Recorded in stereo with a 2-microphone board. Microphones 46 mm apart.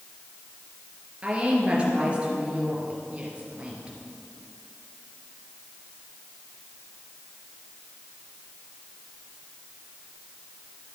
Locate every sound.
1.2 s a woman speaking: 25° right (ahead or behind), 3 m